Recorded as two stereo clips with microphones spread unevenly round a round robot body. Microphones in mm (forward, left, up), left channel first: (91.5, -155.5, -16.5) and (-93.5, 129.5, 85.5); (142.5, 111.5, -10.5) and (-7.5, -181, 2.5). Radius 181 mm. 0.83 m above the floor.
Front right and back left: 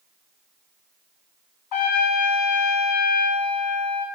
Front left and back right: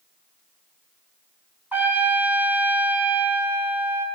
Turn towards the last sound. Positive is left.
turn(degrees=-35)